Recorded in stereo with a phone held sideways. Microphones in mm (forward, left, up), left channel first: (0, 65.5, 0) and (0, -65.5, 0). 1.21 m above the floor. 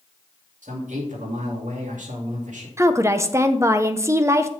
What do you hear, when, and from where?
0.6 s a man speaking: 70° right (ahead or behind), 2.5 m
2.8 s a woman speaking: 20° right (ahead or behind), 0.7 m